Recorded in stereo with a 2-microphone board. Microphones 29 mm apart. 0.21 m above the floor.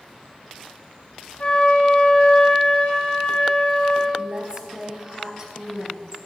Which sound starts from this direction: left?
A flute, at 1.4 s.